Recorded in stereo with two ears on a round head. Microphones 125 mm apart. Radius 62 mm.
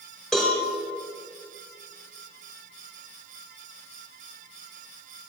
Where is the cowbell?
Centre (ahead or behind), 4.5 m.